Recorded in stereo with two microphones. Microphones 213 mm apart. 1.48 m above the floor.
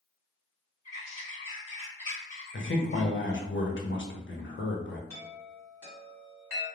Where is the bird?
35° left (ahead or behind), 1.1 m.